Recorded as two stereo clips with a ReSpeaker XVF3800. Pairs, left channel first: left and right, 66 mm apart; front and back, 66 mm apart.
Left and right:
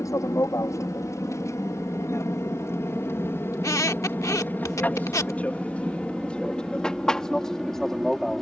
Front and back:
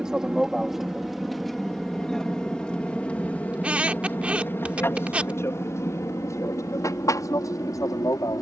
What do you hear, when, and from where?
0.0 s an aircraft: 105° left; by 8.4 s 5° left
3.5 s a squeak: 115° left